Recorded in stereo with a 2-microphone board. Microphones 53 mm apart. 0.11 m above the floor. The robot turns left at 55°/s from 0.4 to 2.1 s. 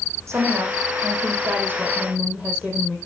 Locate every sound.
0.3 s a woman speaking: 60° right, 4.5 m; by 3.0 s 155° right, 4.5 m